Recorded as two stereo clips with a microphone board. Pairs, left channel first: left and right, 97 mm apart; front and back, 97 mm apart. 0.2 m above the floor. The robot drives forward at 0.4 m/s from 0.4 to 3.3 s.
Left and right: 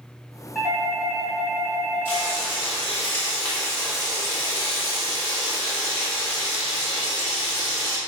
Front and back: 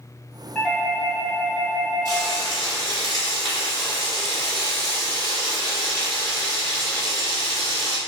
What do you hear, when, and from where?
0.6 s a doorbell: 55° left, 1.5 m; by 2.4 s 135° left, 1.6 m
2.0 s frying: 150° left, 1.9 m; by 8.0 s 160° left, 2.5 m